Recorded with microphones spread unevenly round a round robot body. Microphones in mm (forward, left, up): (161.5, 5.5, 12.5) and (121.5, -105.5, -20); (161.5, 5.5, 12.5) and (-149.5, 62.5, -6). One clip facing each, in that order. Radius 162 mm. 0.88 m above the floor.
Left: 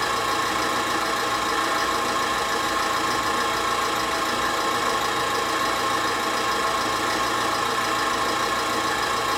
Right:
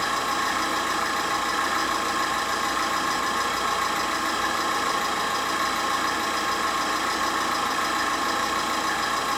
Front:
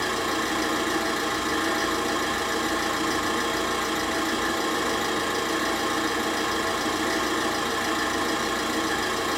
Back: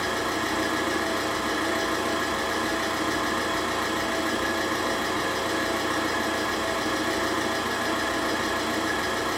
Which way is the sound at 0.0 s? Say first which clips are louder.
Left 2 dB, front 1 dB; 35° left.